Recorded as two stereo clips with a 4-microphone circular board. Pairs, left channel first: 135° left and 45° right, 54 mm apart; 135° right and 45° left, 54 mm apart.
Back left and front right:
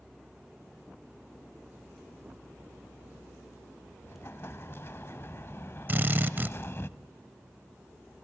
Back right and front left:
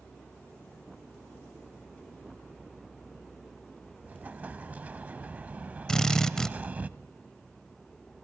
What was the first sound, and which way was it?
An explosion, 100° left.